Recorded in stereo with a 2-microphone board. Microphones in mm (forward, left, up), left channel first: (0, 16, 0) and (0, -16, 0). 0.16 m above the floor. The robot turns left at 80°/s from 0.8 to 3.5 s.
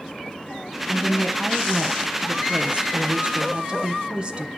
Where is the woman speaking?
75° left, 1.4 m; by 4.5 s 135° right, 1.4 m.